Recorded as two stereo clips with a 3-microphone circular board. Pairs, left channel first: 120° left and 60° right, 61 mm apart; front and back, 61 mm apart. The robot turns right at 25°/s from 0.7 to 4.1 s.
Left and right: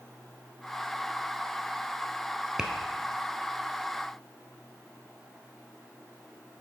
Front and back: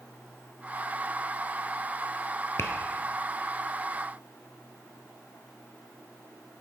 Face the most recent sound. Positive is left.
turn(degrees=50)